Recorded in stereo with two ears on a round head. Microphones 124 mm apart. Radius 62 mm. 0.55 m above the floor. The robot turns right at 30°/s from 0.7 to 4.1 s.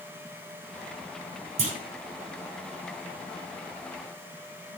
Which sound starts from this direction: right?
A clunk, at 1.6 s.